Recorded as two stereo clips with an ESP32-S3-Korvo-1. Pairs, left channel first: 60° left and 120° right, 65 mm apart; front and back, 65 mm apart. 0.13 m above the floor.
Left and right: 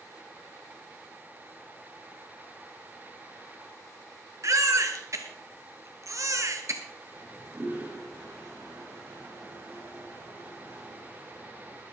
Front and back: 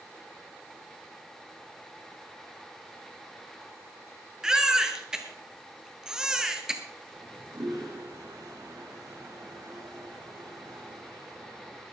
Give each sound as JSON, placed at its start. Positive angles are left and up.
{"t": 4.4, "sound": "a baby crying", "azimuth_deg": -100, "distance_m": 1.5}
{"t": 7.1, "sound": "a toilet flushing", "azimuth_deg": 180, "distance_m": 5.5}